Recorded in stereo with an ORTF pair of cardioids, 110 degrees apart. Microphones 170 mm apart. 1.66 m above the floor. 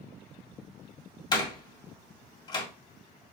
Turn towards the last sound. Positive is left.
turn(degrees=25)